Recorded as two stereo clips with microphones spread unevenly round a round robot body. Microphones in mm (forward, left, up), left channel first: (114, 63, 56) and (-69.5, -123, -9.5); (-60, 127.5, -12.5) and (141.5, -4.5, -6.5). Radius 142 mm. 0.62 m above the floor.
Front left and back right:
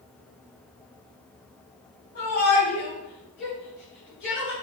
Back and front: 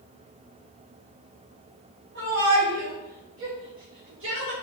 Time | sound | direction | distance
2.1 | a shout | 5° left | 4 m